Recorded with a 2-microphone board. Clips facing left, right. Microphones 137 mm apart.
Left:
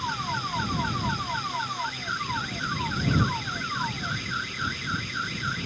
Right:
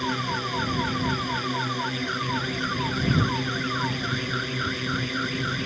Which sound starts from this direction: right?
A drone, at 0.0 s.